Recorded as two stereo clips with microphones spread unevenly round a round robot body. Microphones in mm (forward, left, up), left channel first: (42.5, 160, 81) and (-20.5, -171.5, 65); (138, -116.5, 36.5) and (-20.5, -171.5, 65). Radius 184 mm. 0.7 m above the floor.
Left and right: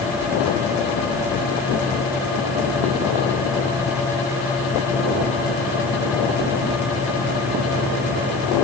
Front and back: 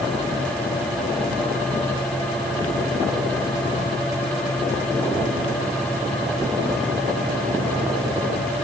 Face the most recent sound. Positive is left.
No sound to turn to.